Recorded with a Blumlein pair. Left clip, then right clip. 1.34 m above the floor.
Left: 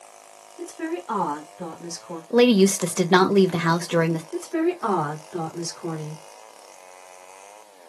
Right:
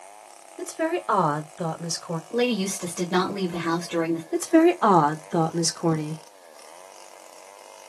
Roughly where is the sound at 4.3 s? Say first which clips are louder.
Right 11 dB; ahead right.